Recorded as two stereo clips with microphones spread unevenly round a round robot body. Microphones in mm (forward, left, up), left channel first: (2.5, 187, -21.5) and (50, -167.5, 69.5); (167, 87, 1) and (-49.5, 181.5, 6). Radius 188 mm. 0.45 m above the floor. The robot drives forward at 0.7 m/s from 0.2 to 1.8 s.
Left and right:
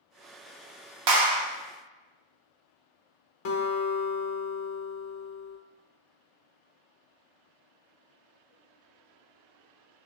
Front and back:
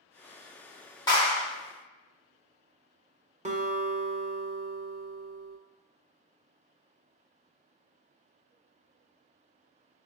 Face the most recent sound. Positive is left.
turn(degrees=100)